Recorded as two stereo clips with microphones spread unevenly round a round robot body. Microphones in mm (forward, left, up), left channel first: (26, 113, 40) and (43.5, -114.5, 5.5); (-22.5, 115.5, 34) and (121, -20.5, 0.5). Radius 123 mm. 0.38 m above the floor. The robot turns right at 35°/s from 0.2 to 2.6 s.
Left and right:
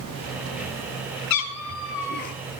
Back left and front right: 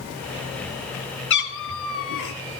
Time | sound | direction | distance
1.3 | a cat meowing | 115° left | 1.0 m